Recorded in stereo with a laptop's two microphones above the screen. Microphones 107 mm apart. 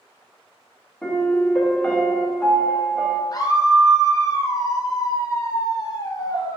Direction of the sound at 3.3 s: 35° left (ahead or behind).